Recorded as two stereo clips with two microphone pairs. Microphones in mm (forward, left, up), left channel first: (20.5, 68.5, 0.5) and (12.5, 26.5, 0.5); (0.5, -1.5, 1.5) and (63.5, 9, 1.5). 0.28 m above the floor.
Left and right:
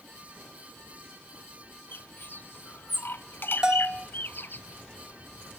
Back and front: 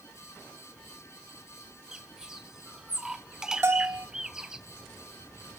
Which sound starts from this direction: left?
A bird, at 1.9 s.